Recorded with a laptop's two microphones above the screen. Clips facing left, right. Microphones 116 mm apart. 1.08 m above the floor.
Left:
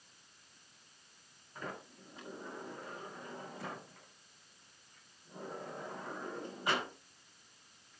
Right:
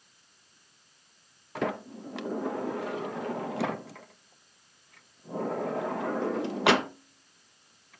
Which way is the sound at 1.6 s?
85° right.